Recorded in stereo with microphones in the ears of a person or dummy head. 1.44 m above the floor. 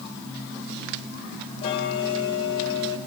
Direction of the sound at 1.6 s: 35° left (ahead or behind).